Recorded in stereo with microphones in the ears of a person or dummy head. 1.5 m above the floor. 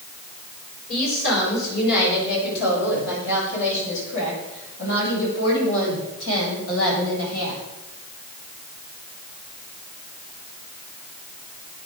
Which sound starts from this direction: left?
A woman speaking, at 0.9 s.